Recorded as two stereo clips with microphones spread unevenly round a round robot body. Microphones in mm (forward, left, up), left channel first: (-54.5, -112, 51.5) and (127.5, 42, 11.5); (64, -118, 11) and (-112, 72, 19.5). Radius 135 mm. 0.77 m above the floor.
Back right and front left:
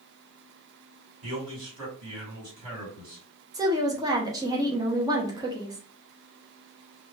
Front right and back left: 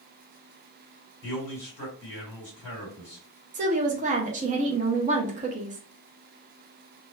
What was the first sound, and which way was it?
A man speaking, 35° left.